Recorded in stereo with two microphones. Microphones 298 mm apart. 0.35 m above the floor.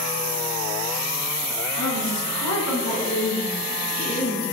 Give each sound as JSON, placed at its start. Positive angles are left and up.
{"t": 1.8, "sound": "a woman speaking", "side_deg": 70, "distance_m": 3.0}